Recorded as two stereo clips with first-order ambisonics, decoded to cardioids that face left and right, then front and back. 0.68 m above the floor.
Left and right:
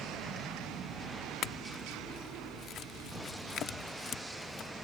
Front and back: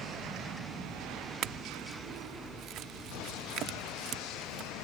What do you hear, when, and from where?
1.4 s a clink: 140° left